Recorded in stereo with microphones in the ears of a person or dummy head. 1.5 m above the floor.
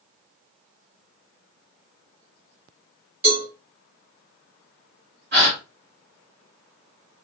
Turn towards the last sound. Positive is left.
turn(degrees=-45)  # may be behind; listen again after turning